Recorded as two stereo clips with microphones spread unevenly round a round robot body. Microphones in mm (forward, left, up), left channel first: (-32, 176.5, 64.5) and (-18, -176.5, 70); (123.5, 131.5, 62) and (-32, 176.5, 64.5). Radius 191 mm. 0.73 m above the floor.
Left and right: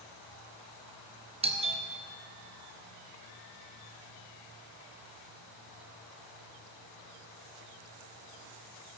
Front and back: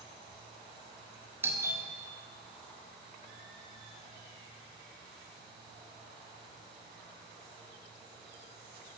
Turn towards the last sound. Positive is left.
turn(degrees=-140)